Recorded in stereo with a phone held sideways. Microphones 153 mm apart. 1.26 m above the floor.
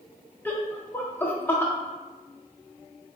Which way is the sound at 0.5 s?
10° left (ahead or behind).